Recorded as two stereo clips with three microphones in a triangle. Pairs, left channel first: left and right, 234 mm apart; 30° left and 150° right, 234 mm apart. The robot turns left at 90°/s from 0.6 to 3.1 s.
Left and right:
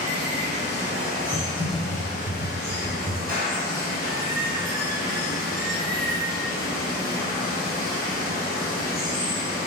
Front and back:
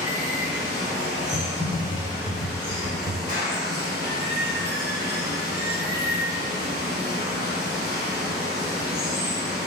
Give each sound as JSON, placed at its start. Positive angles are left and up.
{"t": 0.0, "sound": "running water", "azimuth_deg": -80, "distance_m": 1.0}
{"t": 1.3, "sound": "typing on a keyboard", "azimuth_deg": 5, "distance_m": 0.6}
{"t": 3.3, "sound": "a clap", "azimuth_deg": -115, "distance_m": 1.0}